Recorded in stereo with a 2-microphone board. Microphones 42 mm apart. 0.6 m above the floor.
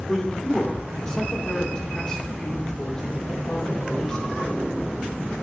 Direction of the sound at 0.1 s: 15° left (ahead or behind).